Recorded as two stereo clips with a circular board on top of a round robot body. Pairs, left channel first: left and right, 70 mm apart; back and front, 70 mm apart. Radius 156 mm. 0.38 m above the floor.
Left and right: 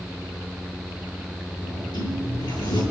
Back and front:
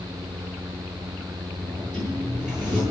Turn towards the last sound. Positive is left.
turn(degrees=80)